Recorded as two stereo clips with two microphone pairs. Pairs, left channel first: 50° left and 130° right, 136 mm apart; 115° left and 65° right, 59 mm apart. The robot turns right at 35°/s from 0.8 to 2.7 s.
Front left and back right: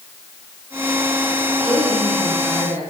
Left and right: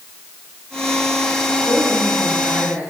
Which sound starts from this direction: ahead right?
A woman speaking, at 1.6 s.